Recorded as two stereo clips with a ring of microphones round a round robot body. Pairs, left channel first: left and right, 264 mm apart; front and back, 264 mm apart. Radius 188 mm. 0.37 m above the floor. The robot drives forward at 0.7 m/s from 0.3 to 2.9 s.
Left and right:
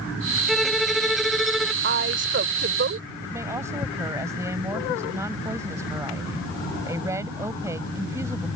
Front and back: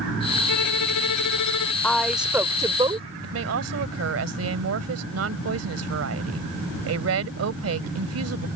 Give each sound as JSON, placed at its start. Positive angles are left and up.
{"t": 0.5, "sound": "a violin", "azimuth_deg": 0}
{"t": 1.8, "sound": "a woman speaking", "azimuth_deg": -80}
{"t": 3.2, "sound": "a woman speaking", "azimuth_deg": -170}